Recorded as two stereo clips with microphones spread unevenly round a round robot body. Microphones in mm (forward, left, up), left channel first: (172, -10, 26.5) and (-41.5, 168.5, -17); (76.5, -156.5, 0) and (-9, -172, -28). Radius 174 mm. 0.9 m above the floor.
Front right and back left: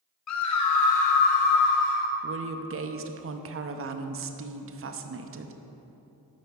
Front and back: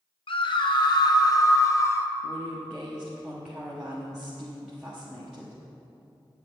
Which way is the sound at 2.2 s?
105° left.